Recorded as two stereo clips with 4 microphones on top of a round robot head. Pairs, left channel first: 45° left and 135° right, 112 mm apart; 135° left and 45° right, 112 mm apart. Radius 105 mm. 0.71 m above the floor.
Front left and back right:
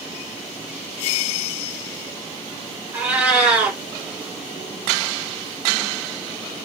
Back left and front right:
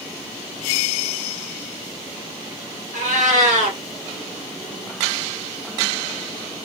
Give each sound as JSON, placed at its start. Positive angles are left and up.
{"t": 2.9, "sound": "a cat meowing", "azimuth_deg": -60, "distance_m": 1.5}